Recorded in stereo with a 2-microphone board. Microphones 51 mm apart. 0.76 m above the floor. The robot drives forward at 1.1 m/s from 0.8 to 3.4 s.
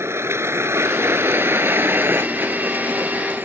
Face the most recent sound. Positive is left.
turn(degrees=-40)  # may be behind; listen again after turning